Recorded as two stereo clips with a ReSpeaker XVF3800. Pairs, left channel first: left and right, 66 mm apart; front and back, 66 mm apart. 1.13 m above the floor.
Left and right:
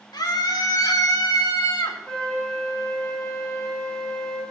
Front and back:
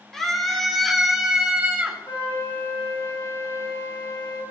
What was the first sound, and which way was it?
A scream, 85° left.